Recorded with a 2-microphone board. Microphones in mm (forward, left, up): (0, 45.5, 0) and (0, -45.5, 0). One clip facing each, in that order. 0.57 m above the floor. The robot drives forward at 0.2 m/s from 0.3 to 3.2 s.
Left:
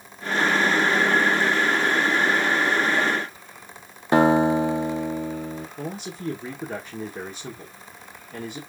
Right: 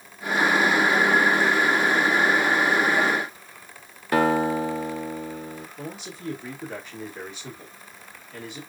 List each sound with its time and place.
4.1 s a guitar: 25° left (ahead or behind), 0.6 m
5.8 s a man speaking: 40° left (ahead or behind), 1.1 m